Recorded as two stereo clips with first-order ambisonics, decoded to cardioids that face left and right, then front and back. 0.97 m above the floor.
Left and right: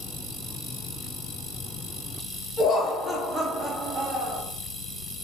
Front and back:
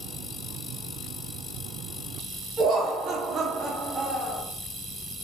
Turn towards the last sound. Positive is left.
turn(degrees=-100)